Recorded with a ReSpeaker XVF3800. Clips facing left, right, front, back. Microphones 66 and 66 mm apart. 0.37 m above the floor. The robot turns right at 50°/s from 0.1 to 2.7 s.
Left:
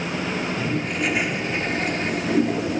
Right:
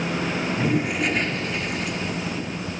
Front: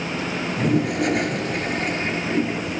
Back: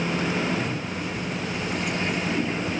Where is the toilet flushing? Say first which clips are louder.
Right 2 dB, front 8 dB; 20° right; by 2.8 s 85° left.